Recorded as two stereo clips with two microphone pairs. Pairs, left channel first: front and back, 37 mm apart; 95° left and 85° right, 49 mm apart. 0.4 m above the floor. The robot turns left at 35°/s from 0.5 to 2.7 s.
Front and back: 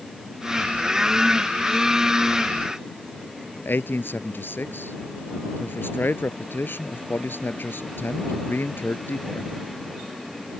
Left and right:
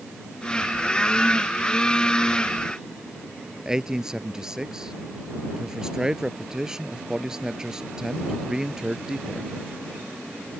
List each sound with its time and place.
3.6 s a man speaking: 5° right